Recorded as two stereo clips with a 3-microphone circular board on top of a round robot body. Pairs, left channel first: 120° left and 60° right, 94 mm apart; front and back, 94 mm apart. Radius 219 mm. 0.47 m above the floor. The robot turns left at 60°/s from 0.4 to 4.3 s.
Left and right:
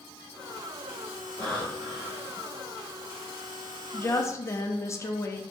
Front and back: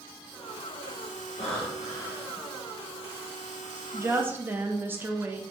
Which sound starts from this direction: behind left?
A woman speaking, at 3.9 s.